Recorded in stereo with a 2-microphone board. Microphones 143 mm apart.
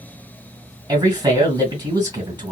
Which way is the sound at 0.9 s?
30° right (ahead or behind).